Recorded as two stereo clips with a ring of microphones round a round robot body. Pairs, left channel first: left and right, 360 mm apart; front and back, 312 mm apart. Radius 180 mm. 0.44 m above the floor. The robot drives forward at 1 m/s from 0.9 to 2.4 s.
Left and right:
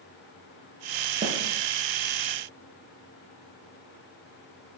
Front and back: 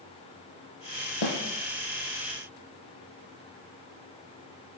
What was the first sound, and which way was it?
A snare drum, 15° right.